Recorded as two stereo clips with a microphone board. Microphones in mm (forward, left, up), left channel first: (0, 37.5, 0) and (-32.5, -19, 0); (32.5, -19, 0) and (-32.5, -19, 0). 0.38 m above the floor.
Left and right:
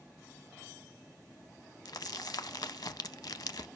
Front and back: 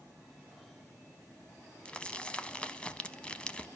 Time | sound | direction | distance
1.9 | crumpling | 75° left | 0.5 m